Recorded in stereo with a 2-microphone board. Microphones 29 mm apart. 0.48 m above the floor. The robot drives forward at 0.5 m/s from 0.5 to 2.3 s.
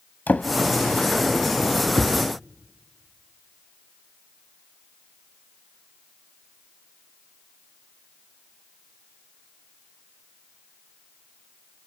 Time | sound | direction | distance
0.3 | a drawer | 85° left | 0.8 m